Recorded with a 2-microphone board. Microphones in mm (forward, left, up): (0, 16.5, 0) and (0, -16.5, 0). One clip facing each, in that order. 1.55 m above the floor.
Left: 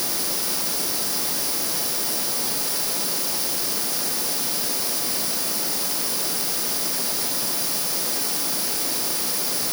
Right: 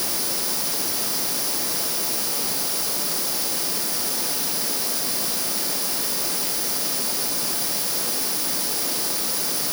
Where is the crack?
I don't hear a crack.